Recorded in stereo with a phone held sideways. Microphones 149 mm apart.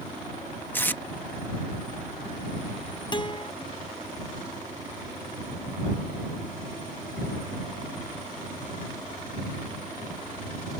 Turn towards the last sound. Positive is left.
turn(degrees=30)  # may be behind; listen again after turning